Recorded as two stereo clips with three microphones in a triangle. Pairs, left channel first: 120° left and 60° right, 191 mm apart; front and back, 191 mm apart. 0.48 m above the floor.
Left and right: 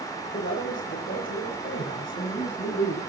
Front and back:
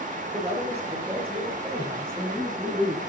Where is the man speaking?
125° left, 7 m; by 3.0 s 105° left, 5 m.